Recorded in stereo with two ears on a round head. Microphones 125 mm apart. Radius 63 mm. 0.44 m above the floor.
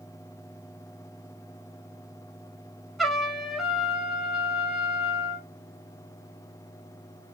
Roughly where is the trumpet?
Centre.